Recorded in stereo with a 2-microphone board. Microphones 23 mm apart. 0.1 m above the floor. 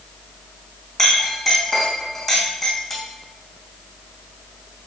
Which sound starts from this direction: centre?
A clink, at 1.0 s.